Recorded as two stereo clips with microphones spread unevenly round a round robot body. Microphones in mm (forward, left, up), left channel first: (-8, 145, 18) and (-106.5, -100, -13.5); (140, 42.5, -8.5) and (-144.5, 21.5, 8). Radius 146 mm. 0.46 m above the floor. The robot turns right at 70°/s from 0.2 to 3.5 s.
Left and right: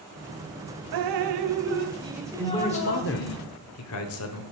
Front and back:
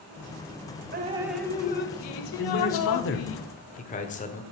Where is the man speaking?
25° right, 1.1 m; by 4.4 s 55° left, 1.1 m.